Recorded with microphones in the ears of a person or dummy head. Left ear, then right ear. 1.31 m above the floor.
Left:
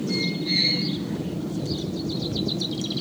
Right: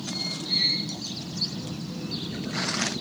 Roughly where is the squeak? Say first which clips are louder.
Left 2 dB; left.